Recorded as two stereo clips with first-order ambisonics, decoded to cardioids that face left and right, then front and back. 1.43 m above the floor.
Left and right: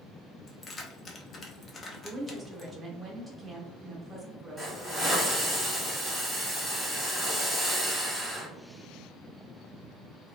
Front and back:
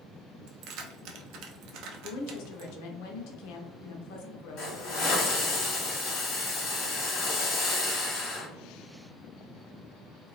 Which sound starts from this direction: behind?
Keys jangling, at 0.5 s.